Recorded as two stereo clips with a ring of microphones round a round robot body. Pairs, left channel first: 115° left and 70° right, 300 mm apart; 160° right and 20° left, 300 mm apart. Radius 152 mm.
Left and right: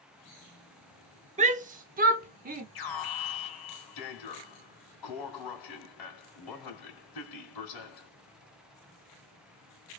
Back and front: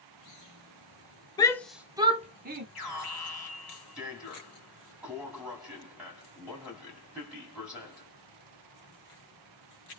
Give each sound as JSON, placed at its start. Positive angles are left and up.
{"t": 1.4, "sound": "a shout", "azimuth_deg": -100, "distance_m": 0.8}
{"t": 2.8, "sound": "an alarm", "azimuth_deg": 110, "distance_m": 2.5}